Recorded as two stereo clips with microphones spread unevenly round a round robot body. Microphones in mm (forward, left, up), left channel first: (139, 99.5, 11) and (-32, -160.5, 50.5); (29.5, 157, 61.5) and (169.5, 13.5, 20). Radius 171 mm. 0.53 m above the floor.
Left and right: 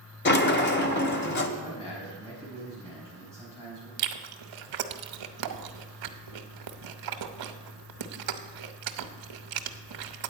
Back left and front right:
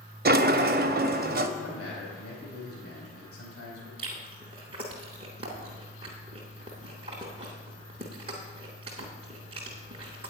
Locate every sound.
0.2 s a sliding door: straight ahead, 1.0 m
1.6 s a man speaking: 130° left, 4 m
4.0 s chewing: 125° right, 0.7 m